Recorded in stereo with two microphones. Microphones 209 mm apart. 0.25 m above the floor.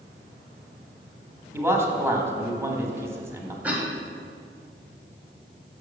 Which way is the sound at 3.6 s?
5° right (ahead or behind).